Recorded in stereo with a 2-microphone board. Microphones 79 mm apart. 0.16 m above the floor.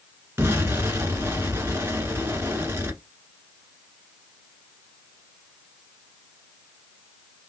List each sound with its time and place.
0.4 s an explosion: 30° right (ahead or behind), 1.2 m